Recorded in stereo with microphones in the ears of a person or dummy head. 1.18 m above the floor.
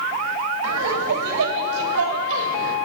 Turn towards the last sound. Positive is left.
turn(degrees=-65)  # may be behind; listen again after turning